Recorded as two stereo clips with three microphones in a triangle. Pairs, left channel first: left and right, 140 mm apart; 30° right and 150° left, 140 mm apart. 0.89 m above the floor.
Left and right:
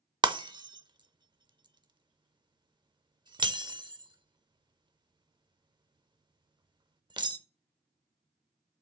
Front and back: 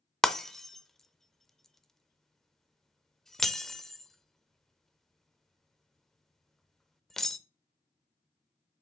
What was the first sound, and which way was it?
Breaking glass, 120° right.